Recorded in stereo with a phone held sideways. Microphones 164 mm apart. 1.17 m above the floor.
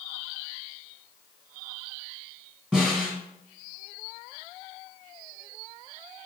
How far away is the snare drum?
About 1.8 m.